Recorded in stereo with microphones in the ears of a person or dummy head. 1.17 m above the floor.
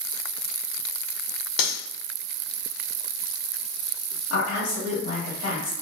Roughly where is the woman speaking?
Left.